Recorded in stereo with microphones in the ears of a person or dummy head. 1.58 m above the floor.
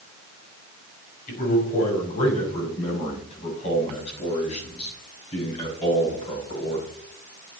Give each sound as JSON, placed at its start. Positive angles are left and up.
{"t": 1.3, "sound": "a man speaking", "side_deg": 50, "distance_m": 5.5}